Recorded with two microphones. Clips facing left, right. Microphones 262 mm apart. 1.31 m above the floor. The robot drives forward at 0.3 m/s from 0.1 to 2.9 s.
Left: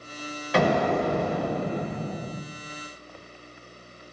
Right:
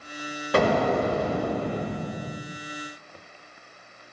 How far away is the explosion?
About 1.6 m.